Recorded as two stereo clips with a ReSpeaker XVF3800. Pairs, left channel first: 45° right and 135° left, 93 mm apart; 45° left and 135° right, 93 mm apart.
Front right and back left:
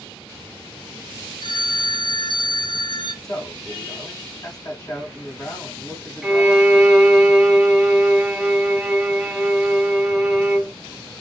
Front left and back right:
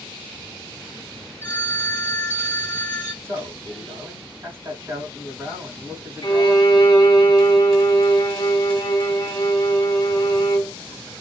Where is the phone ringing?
25° right, 1.5 m.